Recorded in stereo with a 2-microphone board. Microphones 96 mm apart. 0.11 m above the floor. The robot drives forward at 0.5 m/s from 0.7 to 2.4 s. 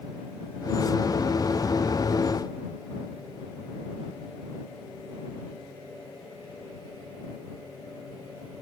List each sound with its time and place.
Only background noise.